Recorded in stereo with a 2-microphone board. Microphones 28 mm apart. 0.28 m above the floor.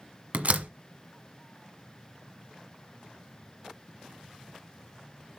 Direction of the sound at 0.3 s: 60° right (ahead or behind).